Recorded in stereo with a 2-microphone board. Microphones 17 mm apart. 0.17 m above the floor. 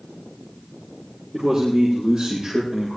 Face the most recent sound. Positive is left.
turn(degrees=-30)  # may be behind; listen again after turning